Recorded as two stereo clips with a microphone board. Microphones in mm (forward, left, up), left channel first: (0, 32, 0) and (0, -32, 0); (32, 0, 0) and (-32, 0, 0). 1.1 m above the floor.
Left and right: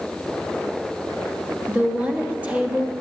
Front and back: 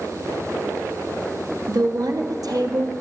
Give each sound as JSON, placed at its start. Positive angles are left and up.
{"t": 1.7, "sound": "a woman speaking", "azimuth_deg": -160, "distance_m": 1.5}